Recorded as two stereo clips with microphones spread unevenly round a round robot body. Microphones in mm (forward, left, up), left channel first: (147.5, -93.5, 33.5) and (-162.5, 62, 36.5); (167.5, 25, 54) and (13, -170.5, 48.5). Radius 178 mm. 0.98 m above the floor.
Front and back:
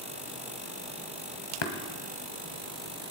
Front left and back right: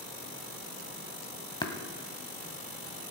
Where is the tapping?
20° right, 1.9 m.